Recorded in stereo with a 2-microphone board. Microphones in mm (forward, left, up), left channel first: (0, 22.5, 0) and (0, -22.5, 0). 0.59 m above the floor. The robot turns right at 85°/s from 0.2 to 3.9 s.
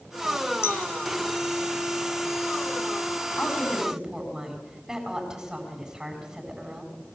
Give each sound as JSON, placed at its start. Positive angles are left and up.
{"t": 0.6, "sound": "a clink", "side_deg": 65, "distance_m": 1.2}
{"t": 3.4, "sound": "a woman speaking", "azimuth_deg": 150, "distance_m": 5.0}